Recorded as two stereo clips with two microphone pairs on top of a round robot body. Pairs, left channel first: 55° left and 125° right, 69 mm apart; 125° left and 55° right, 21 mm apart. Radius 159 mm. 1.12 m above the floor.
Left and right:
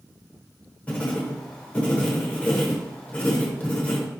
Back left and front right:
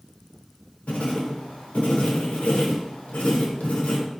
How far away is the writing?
About 0.9 m.